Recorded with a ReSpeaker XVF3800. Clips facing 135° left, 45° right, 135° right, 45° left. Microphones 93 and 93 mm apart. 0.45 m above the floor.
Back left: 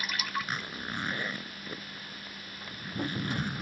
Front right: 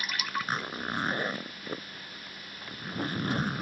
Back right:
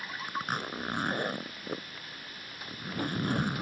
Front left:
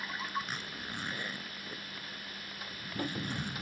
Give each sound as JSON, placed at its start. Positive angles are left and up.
{"t": 0.3, "sound": "a zipper", "azimuth_deg": -100}